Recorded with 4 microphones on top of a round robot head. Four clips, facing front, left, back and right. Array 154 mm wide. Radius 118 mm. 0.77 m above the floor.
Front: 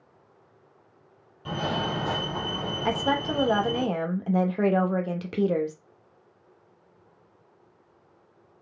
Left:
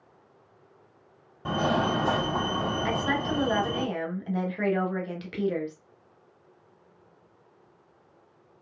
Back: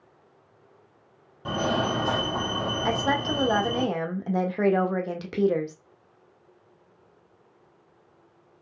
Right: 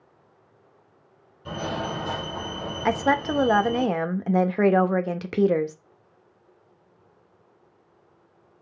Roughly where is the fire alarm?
Behind left.